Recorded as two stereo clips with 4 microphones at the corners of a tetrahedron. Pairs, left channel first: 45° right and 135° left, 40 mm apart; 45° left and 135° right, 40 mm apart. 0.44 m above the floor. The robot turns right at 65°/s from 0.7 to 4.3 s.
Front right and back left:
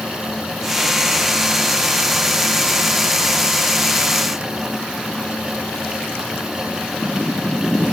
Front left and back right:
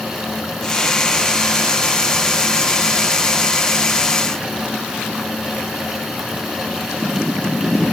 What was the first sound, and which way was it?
Only background noise.